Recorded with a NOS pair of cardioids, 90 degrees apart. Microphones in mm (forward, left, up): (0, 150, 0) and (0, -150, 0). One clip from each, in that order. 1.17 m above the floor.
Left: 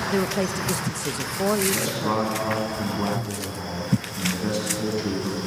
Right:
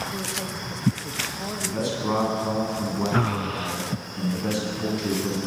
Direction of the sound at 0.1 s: 55° left.